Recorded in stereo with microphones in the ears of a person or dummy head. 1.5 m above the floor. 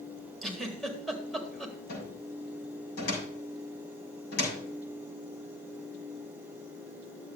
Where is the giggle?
Centre (ahead or behind), 1.9 m.